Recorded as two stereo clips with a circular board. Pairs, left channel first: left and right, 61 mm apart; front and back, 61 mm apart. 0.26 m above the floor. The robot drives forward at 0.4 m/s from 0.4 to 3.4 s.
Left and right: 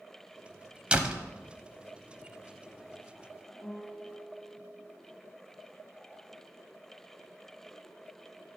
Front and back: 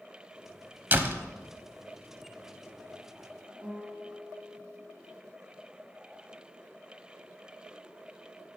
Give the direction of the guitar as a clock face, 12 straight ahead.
7 o'clock.